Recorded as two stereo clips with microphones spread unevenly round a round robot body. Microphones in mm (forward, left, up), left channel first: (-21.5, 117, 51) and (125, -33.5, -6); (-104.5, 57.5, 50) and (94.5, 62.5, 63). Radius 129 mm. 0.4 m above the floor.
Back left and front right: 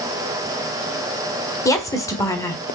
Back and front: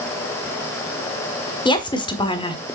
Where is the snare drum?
No snare drum in this recording.